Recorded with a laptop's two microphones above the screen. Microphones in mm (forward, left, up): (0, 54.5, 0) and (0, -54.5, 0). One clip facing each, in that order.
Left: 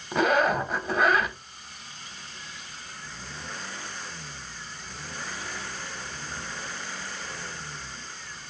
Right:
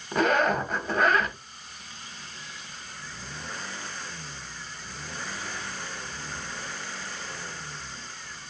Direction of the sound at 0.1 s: 5° left (ahead or behind).